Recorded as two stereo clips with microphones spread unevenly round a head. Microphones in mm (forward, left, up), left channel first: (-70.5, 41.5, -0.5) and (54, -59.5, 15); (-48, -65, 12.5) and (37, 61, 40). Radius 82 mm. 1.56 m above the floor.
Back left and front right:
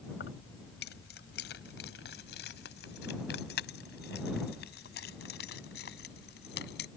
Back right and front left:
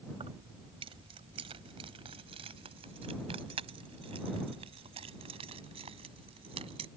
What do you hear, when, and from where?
0.1 s keys jangling: 110° left